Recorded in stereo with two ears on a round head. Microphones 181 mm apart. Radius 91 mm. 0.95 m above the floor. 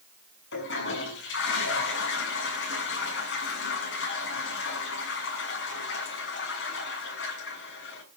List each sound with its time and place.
0.5 s a toilet flushing: 60° left (ahead or behind), 7 m